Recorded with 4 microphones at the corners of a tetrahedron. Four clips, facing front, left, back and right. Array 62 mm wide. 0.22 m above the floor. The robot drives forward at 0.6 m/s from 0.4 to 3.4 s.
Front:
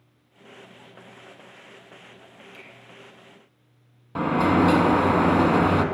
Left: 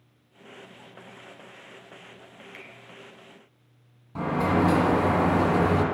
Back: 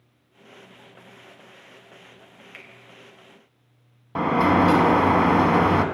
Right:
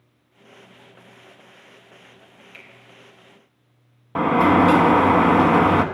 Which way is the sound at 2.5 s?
170° left.